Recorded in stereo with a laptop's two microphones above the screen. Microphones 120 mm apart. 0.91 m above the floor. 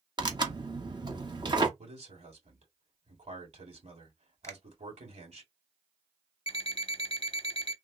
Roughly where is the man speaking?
Right.